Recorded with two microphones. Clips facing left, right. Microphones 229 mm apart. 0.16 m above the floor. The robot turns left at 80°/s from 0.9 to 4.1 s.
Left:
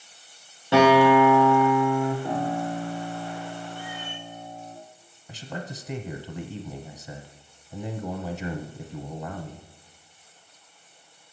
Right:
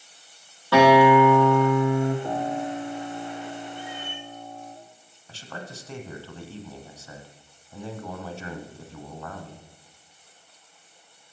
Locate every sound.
0.7 s a guitar: 160° left, 5.5 m; by 2.1 s 60° left, 5.5 m
2.2 s a piano: 5° left, 3.5 m; by 4.8 s 145° right, 3.5 m
3.8 s a cat meowing: 20° right (ahead or behind), 3 m; by 4.3 s 45° right (ahead or behind), 3 m
5.3 s a man speaking: 15° left (ahead or behind), 1.0 m